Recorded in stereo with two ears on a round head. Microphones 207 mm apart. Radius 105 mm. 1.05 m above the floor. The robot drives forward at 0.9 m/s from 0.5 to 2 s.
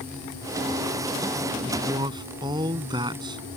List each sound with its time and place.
1.6 s a man speaking: 15° right (ahead or behind)